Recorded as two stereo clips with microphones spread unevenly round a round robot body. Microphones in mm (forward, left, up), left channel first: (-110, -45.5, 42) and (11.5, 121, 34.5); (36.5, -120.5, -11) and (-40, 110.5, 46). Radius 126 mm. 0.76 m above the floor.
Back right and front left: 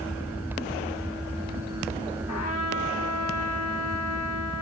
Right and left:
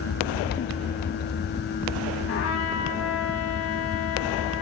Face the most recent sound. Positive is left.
turn(degrees=-105)